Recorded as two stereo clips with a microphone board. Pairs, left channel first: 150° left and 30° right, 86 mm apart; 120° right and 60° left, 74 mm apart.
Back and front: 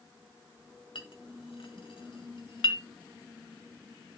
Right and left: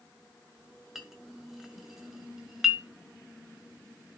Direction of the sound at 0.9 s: 145° left.